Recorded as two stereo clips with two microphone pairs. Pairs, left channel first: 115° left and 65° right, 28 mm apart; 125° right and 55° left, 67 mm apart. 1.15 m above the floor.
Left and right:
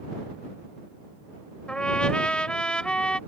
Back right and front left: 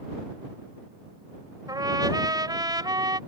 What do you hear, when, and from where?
1.7 s a trumpet: 60° left